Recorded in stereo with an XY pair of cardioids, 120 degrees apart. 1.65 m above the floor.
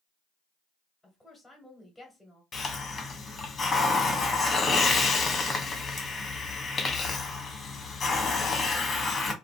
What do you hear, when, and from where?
1.0 s a woman speaking: straight ahead, 1.1 m
2.5 s a hiss: 30° left, 0.8 m